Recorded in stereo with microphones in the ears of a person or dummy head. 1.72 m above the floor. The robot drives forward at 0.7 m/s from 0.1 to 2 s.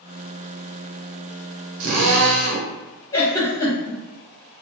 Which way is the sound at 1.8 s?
85° right.